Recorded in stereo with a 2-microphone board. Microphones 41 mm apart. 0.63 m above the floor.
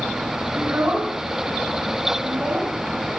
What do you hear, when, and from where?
0.6 s a child speaking: 45° right (ahead or behind), 6 m; by 2.7 s 35° right (ahead or behind), 4.5 m